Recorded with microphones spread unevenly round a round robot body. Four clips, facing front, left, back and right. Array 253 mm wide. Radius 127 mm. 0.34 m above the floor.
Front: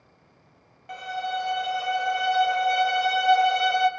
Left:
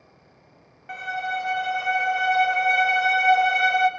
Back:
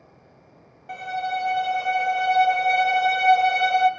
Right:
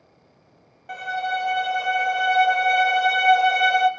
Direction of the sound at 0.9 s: 95° right.